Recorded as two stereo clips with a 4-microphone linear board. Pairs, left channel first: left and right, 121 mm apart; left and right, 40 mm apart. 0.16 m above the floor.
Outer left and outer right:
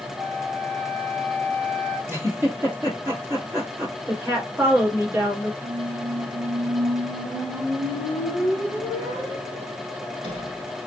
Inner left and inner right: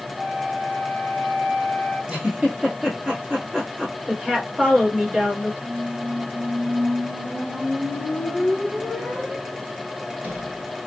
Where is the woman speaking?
20° right (ahead or behind), 1.8 m.